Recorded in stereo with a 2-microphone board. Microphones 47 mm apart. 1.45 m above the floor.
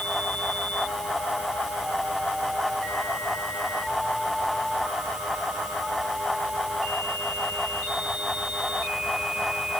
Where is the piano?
I don't hear a piano.